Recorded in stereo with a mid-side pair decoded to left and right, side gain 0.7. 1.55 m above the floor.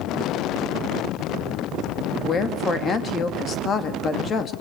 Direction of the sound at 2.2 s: 35° left.